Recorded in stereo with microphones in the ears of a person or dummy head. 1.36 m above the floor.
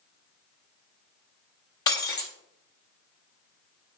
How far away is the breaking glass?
About 0.8 m.